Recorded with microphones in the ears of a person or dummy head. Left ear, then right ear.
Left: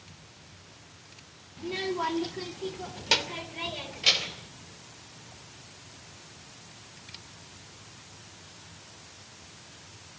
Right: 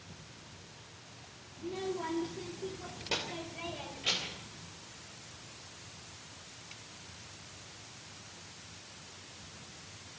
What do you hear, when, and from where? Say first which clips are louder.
1.6 s a child speaking: left 7 dB; 75° left (ahead or behind), 1.5 m; by 4.5 s 50° left (ahead or behind), 4 m